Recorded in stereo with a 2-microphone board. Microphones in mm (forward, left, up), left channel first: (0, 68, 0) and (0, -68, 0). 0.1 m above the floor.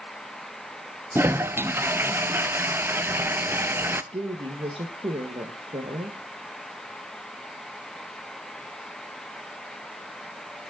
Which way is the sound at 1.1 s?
15° right (ahead or behind).